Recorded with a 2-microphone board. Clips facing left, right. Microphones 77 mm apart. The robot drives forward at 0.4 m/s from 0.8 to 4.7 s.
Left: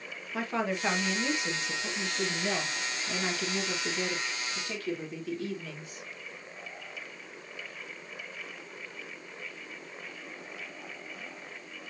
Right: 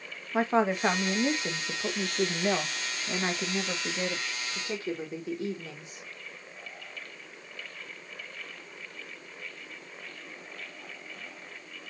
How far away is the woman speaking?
About 1.0 m.